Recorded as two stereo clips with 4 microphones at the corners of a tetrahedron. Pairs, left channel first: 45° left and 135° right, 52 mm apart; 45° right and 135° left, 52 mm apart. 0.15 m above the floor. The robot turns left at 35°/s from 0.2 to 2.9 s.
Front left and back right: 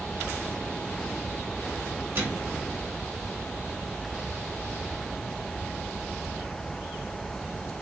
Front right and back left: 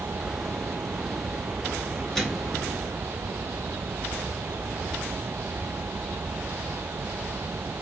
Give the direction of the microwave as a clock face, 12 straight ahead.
4 o'clock.